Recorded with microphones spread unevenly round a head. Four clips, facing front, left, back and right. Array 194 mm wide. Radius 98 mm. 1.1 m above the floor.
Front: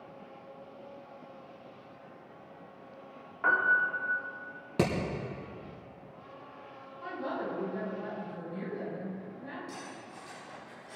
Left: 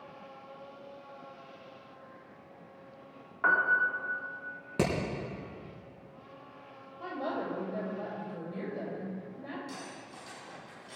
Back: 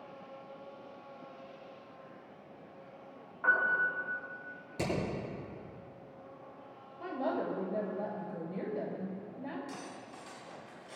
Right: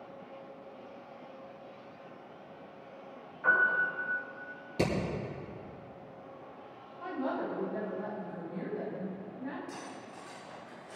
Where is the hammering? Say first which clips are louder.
Left 1 dB, front 6 dB; 25° left, 5 m.